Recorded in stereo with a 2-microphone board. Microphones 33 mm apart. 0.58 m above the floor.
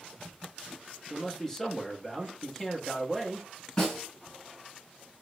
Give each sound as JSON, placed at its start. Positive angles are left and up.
{"t": 1.1, "sound": "a man speaking", "side_deg": 15, "distance_m": 0.9}
{"t": 3.8, "sound": "a snare drum", "side_deg": 20, "distance_m": 1.8}